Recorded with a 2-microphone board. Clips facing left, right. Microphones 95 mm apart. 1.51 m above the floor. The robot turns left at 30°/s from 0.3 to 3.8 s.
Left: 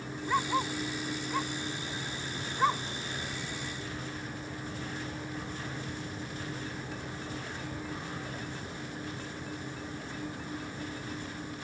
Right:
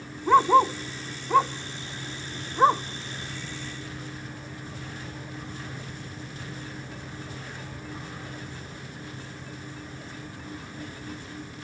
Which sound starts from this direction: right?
A dog barking, at 0.3 s.